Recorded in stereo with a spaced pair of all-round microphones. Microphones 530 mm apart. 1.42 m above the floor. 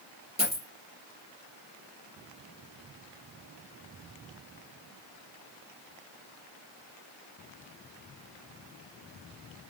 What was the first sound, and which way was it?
A dropped coin, 10° right (ahead or behind).